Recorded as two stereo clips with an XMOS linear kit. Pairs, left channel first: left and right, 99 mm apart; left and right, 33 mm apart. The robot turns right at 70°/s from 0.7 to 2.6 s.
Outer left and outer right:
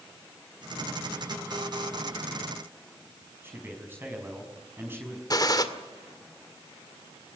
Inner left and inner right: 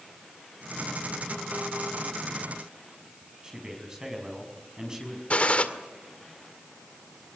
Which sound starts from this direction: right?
A man speaking, at 3.4 s.